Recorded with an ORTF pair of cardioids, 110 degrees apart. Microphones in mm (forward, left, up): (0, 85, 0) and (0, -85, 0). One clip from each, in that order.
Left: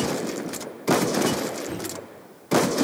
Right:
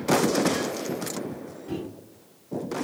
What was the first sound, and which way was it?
A microwave, 35° left.